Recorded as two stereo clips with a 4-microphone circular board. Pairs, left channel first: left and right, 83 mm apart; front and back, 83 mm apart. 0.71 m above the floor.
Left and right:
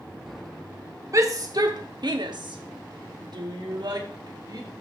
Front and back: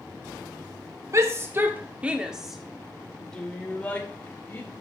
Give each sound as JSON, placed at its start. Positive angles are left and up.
{"t": 1.1, "sound": "a shout", "azimuth_deg": -135, "distance_m": 1.3}